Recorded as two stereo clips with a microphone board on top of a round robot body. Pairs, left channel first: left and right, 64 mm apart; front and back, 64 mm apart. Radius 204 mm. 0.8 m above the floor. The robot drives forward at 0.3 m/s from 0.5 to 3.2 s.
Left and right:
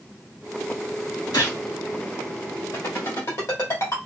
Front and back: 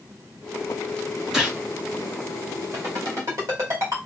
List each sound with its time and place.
1.3 s a gunshot: 100° left, 3 m
2.7 s a ringtone: 140° left, 3 m